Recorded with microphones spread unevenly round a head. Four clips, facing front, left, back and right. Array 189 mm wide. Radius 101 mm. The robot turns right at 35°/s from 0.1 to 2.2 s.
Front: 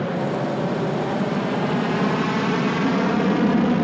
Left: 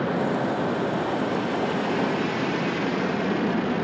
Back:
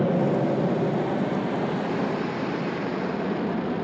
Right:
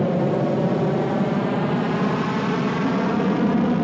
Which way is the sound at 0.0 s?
120° right.